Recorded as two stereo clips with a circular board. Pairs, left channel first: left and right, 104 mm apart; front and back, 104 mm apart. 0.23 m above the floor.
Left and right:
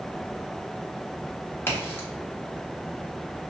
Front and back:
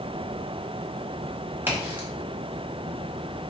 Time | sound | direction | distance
1.7 | a crack | 135° left | 1.3 m